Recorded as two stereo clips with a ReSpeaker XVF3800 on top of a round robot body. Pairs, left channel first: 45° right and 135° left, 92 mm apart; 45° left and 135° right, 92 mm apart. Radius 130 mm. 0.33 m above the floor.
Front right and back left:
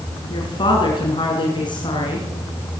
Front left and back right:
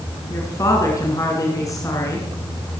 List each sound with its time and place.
0.3 s a woman speaking: 10° right, 5.5 m